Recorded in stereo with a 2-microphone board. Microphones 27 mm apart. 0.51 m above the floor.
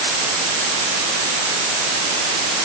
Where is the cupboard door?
No cupboard door in this recording.